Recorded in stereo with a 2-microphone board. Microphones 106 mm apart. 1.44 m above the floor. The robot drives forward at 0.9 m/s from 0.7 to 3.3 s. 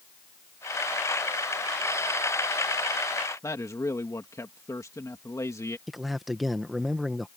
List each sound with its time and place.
3.4 s a man speaking: 30° left (ahead or behind)
5.9 s a man speaking: centre (ahead or behind)